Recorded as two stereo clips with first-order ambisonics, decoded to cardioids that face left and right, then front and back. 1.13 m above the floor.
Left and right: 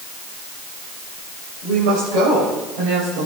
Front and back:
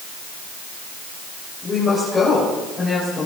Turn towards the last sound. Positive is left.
turn(degrees=-75)